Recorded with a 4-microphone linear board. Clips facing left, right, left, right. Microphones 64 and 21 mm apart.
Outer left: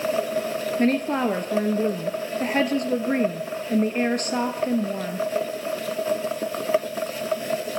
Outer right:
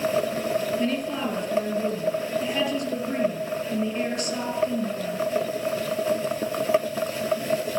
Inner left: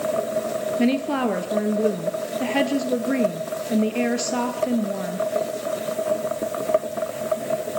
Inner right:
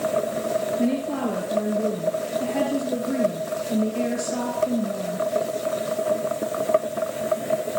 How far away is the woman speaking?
About 2 m.